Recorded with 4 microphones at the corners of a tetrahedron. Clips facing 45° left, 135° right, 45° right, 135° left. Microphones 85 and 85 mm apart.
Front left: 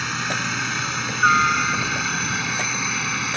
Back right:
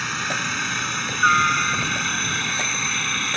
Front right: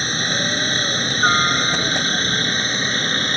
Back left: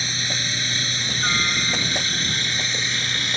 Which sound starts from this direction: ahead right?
A helicopter, at 0.0 s.